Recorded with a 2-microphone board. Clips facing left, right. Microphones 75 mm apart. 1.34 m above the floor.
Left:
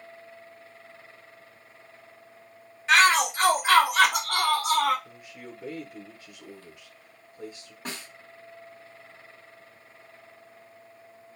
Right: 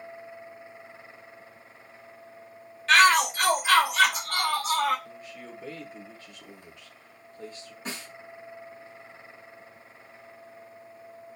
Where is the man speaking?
15° left (ahead or behind), 0.8 m.